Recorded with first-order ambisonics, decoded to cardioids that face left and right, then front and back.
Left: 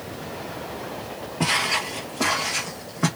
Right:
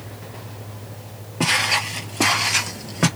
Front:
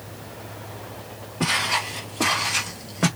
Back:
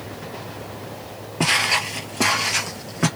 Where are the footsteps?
155° right, 1.5 m; by 3.1 s 95° right, 1.5 m.